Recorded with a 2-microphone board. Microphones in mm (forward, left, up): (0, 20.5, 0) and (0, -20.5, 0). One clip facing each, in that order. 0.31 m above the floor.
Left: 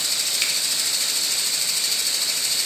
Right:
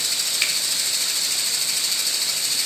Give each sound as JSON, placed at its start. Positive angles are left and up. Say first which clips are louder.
{"t": 0.4, "sound": "a finger snap", "louder": "right 3 dB", "side_deg": -15, "distance_m": 1.0}